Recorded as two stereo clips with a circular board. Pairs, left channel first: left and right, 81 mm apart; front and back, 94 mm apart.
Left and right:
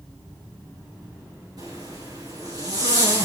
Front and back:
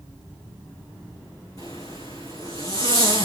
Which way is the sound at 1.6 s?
50° right.